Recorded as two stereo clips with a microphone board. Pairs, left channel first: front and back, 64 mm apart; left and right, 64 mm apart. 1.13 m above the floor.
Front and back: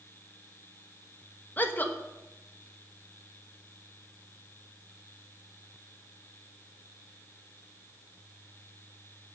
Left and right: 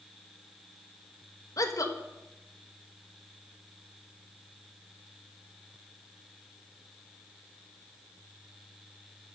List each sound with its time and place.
1.6 s a woman speaking: 60° left, 1.2 m